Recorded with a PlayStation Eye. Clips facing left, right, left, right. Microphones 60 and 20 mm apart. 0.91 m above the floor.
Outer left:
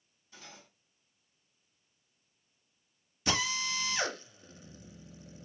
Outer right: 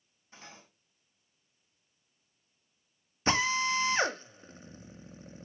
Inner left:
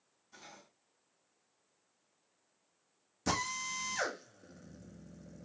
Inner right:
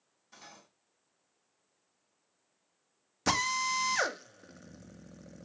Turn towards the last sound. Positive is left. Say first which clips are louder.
# outer right 5 dB, inner right 6 dB
turn(degrees=-35)  # may be behind; listen again after turning